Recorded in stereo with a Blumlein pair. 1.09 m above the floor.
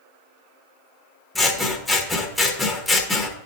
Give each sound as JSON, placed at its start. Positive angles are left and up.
{"t": 1.4, "sound": "scissors", "azimuth_deg": 5, "distance_m": 1.0}